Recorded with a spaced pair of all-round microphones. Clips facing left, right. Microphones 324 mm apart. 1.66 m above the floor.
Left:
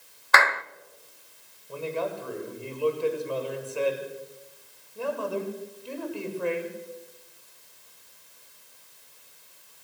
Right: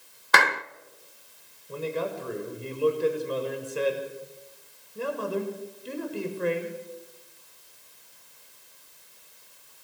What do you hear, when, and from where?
0.3 s a clap: 40° right (ahead or behind), 0.7 m
1.7 s a man speaking: 25° right (ahead or behind), 7 m